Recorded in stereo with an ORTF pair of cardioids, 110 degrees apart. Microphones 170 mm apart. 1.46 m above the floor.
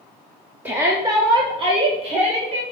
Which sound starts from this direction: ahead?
A shout, at 0.7 s.